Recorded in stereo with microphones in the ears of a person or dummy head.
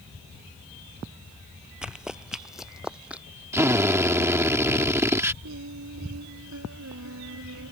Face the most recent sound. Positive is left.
turn(degrees=-70)  # may be behind; listen again after turning